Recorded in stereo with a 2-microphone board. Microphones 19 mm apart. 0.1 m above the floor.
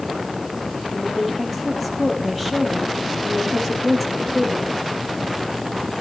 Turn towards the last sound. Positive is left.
turn(degrees=0)  # may be behind; listen again after turning